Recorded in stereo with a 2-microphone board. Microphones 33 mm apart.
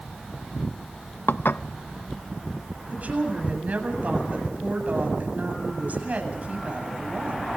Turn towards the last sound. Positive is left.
turn(degrees=-50)  # may be behind; listen again after turning